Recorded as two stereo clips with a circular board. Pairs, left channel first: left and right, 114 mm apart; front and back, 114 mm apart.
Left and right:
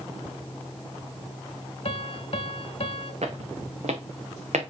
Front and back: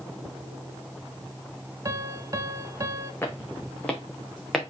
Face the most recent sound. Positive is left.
turn(degrees=-90)